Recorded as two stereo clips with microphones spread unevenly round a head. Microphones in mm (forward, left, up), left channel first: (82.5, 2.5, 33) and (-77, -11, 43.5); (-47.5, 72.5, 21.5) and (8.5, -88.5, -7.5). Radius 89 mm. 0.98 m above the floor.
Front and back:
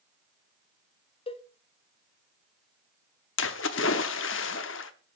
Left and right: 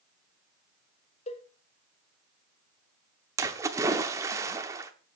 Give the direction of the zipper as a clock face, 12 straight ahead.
No zipper in this recording.